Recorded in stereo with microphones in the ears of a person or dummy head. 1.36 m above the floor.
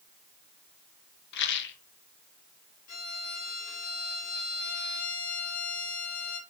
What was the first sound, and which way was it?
A rattle, 60° left (ahead or behind).